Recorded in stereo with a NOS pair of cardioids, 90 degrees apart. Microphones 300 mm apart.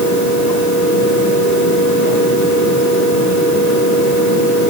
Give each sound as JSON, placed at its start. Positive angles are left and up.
{"t": 0.0, "sound": "a fan", "azimuth_deg": 70, "distance_m": 6.0}